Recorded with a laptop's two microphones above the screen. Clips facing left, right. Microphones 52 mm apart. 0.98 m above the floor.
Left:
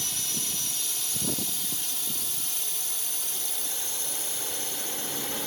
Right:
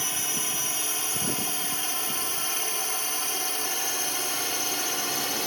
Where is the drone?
40° right (ahead or behind); by 5.5 s 65° right (ahead or behind).